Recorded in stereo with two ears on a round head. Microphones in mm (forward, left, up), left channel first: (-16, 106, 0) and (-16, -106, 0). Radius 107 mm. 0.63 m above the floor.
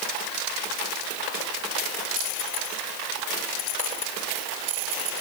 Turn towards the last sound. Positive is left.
No sound to turn to.